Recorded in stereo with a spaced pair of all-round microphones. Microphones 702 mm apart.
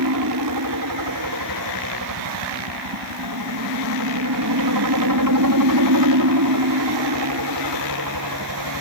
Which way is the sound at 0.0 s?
30° right (ahead or behind).